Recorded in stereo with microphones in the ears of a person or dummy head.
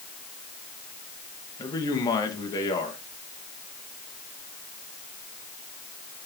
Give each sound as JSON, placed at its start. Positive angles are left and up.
{"t": 1.6, "sound": "a man speaking", "side_deg": 25, "distance_m": 1.7}